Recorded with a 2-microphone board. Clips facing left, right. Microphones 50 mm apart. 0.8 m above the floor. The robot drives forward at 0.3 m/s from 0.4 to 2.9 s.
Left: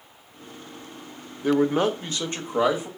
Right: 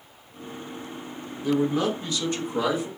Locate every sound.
1.4 s a man speaking: 45° left (ahead or behind), 0.6 m; by 2.9 s 30° left (ahead or behind), 0.8 m